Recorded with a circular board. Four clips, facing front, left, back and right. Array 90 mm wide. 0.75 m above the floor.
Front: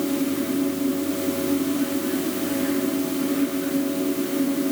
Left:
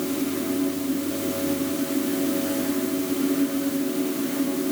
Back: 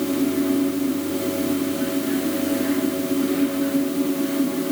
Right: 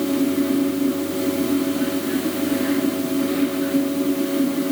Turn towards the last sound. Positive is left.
No sound to turn to.